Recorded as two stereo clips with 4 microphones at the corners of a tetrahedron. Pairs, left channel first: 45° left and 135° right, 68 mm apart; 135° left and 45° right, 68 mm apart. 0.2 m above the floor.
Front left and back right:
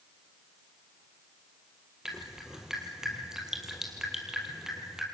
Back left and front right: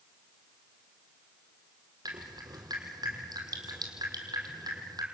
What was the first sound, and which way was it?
Dripping, 55° right.